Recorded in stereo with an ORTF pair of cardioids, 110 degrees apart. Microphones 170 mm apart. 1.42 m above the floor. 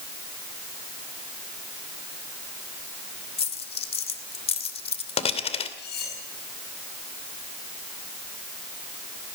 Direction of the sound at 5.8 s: 65° left.